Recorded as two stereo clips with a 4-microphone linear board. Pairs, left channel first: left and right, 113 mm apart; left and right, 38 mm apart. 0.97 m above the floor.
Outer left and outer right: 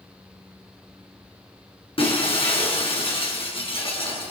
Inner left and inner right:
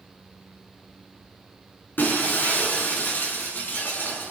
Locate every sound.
2.0 s breaking glass: 55° left (ahead or behind), 7.5 m